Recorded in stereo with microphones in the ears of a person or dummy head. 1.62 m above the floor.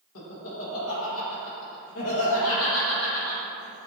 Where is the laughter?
80° left, 1.4 m.